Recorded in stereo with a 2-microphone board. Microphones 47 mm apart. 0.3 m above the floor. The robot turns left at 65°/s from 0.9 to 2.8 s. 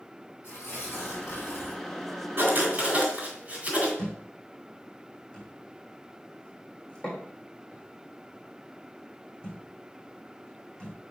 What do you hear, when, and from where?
0.4 s tearing paper: 130° left, 4 m; by 1.8 s 70° left, 4 m
2.4 s writing: 50° right (ahead or behind), 3 m; by 3.9 s 30° right (ahead or behind), 3 m
4.0 s a thud: 20° left (ahead or behind), 4 m